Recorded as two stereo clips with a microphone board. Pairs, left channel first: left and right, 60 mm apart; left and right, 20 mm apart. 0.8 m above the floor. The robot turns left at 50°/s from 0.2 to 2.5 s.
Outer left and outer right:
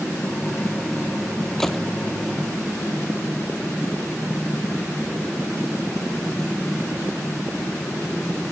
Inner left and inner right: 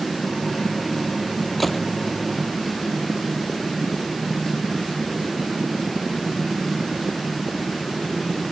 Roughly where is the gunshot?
Centre.